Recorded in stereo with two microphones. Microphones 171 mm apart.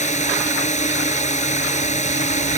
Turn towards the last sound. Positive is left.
turn(degrees=40)  # may be behind; listen again after turning